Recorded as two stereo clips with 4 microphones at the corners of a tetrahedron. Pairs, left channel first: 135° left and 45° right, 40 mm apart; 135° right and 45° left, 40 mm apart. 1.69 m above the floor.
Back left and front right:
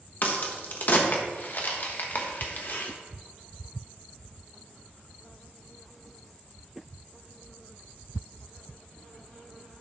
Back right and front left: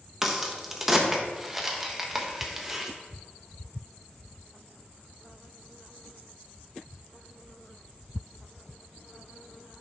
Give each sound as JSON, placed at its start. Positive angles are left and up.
{"t": 0.2, "sound": "a crack", "azimuth_deg": 125, "distance_m": 1.2}